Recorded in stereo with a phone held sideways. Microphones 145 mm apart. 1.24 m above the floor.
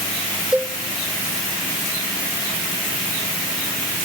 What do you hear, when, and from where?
0.5 s a cowbell: 5° right (ahead or behind), 0.6 m